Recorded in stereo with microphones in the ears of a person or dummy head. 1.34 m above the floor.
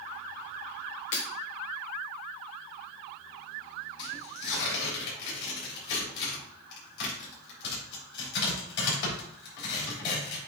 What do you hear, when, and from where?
1.1 s breaking glass: 35° left (ahead or behind), 1.2 m
4.0 s tearing paper: 65° left (ahead or behind), 4 m